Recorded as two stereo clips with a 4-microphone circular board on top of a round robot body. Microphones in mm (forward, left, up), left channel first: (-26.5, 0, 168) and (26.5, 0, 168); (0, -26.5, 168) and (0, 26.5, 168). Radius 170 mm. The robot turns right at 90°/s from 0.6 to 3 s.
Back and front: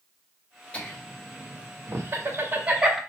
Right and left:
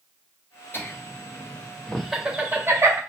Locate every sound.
0.7 s laughter: 115° right, 1.7 m; by 3.0 s 85° left, 1.7 m